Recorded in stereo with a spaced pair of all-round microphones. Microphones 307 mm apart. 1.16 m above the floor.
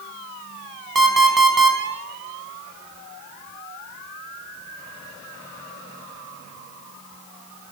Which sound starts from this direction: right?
An alarm clock, at 0.9 s.